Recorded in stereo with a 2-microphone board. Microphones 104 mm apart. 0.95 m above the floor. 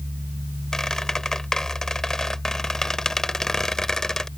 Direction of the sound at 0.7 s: 5° left (ahead or behind).